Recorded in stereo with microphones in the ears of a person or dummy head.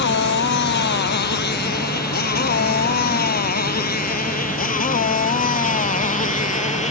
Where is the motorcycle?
60° left (ahead or behind); by 6.9 s 35° left (ahead or behind).